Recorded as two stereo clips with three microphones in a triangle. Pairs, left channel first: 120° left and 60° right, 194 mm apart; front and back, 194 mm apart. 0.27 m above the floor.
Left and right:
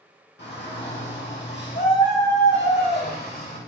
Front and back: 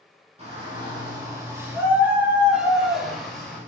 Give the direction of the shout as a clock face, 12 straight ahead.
8 o'clock.